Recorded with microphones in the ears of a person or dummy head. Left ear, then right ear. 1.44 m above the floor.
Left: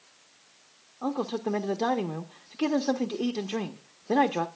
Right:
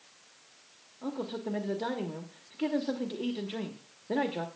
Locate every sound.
1.0 s a man speaking: 65° left (ahead or behind), 0.8 m